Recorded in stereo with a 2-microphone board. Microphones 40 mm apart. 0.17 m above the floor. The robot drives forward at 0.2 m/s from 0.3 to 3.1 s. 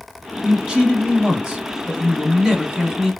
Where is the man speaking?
20° right (ahead or behind), 1.1 m; by 3.1 s 15° right (ahead or behind), 1.3 m.